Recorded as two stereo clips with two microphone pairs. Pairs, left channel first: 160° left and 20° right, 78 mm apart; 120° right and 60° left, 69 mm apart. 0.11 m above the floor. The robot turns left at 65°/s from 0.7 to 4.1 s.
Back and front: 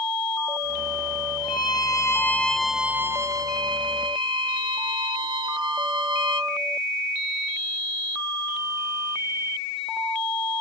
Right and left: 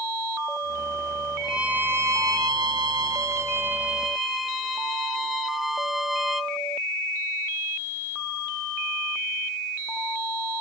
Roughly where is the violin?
Behind left.